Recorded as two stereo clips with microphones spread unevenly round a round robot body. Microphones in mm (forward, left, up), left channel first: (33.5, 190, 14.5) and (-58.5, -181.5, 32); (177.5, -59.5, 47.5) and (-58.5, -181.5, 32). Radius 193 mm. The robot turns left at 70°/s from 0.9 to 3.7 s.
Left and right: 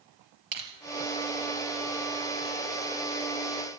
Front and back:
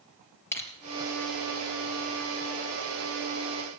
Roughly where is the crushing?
Ahead right.